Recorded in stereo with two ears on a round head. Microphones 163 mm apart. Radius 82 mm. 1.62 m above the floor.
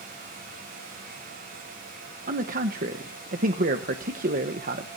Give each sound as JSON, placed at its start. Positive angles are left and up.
{"t": 2.3, "sound": "a man speaking", "side_deg": -50, "distance_m": 1.0}